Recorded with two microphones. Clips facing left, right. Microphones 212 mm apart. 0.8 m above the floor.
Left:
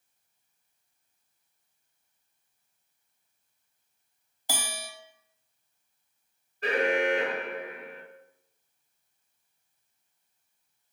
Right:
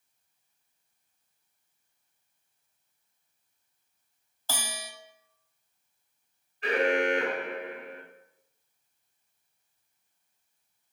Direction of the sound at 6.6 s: 40° left (ahead or behind).